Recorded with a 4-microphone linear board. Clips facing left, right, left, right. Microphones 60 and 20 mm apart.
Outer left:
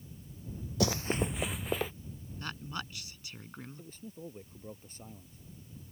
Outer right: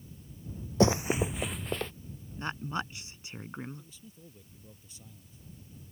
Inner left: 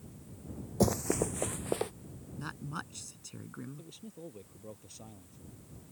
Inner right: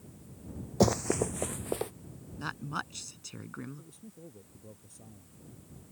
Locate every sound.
0.8 s running footsteps: 35° right (ahead or behind); by 1.9 s 10° left (ahead or behind)
2.4 s a woman speaking: 25° right (ahead or behind)
3.8 s a man speaking: 45° left (ahead or behind)